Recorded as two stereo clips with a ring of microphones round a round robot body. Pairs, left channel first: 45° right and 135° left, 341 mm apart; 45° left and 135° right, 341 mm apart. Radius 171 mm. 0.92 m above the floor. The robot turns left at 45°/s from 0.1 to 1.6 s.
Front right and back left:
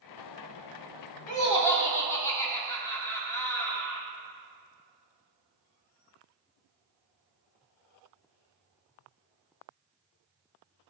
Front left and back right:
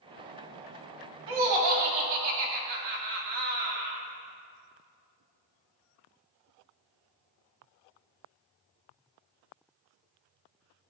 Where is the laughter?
110° right, 1.9 m; by 4.0 s 125° right, 1.9 m.